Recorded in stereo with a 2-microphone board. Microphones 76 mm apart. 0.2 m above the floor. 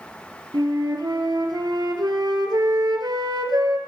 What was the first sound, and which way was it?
A flute, 65° right (ahead or behind).